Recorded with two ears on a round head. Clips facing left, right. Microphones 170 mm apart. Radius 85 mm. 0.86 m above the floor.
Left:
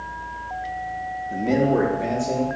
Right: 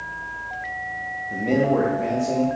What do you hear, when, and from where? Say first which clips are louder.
1.3 s a man speaking: even; 5° left (ahead or behind), 0.5 m; by 2.5 s 10° left (ahead or behind), 1.2 m